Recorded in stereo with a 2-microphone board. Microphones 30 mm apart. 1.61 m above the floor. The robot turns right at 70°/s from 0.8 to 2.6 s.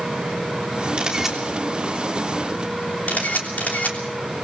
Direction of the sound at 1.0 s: 35° right (ahead or behind).